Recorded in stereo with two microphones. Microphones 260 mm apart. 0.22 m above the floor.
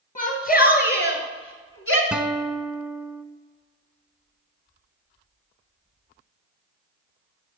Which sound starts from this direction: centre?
A guitar, at 2.1 s.